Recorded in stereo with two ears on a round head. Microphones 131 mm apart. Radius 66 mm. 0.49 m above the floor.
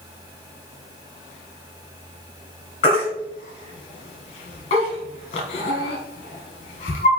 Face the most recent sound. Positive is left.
turn(degrees=40)  # may be behind; listen again after turning